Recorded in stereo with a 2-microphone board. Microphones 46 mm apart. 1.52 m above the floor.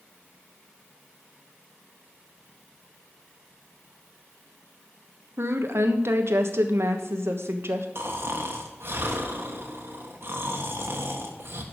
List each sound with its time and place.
5.4 s a woman speaking: 65° right (ahead or behind), 1.3 m
8.0 s snoring: 55° right (ahead or behind), 1.5 m